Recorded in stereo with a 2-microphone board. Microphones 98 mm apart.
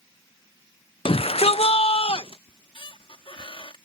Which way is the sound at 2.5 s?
60° left (ahead or behind).